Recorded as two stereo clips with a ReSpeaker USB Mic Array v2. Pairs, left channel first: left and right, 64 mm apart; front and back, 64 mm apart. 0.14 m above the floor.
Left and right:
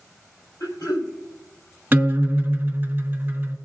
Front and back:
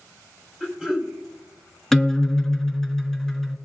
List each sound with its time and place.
0.6 s throat clearing: 100° left, 4.5 m
1.9 s a guitar: 80° right, 1.6 m